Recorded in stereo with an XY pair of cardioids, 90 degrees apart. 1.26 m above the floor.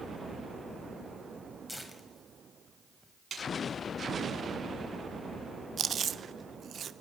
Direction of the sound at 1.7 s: 5° left.